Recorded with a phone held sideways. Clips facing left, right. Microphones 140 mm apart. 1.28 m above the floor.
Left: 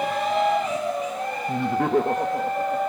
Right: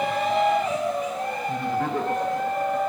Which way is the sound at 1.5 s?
65° left (ahead or behind).